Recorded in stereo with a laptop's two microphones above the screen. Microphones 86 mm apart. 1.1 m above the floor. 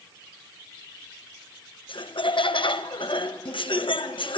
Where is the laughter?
80° left, 0.7 m.